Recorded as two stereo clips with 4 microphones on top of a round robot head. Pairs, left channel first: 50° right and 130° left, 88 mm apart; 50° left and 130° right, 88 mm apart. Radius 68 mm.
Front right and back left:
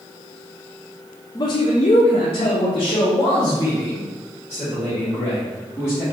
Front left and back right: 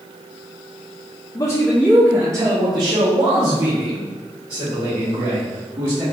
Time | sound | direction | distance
1.4 | a man speaking | straight ahead | 0.6 m